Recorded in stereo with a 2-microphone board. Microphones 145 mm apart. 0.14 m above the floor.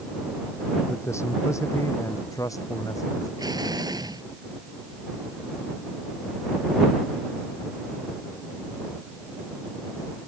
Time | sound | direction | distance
0.9 | a man speaking | 20° left (ahead or behind) | ?
3.4 | an explosion | 30° right (ahead or behind) | ?